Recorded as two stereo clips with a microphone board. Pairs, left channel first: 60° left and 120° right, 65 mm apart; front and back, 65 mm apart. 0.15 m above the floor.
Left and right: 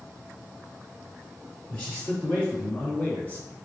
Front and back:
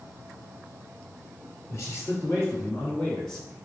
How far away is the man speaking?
About 2 m.